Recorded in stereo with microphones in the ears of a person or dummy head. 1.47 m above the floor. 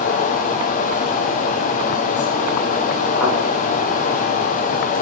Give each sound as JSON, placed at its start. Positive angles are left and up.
{"t": 0.0, "sound": "a fan", "side_deg": 45, "distance_m": 1.7}
{"t": 3.2, "sound": "a thud", "side_deg": 20, "distance_m": 8.5}